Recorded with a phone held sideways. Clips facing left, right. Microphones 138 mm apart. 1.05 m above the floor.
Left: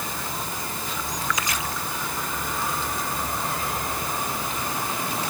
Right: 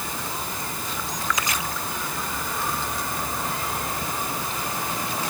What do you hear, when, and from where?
Only background noise.